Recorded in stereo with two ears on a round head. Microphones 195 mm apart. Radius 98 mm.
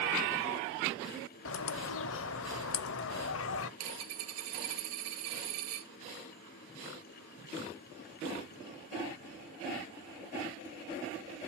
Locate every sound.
1.4 s a bird: 60° left (ahead or behind), 0.5 m
3.8 s a dropped coin: 75° right (ahead or behind), 1.1 m